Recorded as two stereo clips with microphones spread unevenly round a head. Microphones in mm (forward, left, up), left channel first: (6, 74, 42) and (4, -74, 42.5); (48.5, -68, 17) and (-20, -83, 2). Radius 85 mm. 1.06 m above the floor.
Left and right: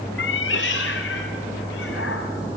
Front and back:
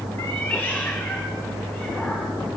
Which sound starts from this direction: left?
A cat meowing, at 0.2 s.